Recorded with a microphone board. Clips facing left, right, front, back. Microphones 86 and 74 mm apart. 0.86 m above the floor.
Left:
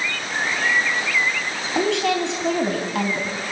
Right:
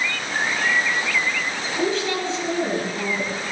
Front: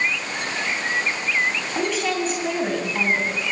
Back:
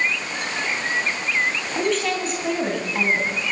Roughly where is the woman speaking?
Left.